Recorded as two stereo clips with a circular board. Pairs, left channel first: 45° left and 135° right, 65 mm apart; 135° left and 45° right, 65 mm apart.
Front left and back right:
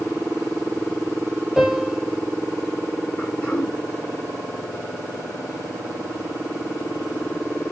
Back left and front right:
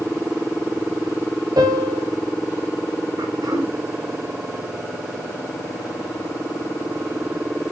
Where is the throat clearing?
25° right, 8 m.